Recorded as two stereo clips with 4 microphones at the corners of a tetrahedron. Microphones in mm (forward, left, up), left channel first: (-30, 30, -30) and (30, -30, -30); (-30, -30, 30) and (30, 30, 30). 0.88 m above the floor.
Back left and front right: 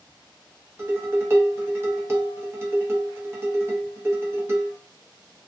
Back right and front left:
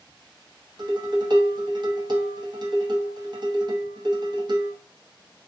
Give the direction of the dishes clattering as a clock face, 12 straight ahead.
12 o'clock.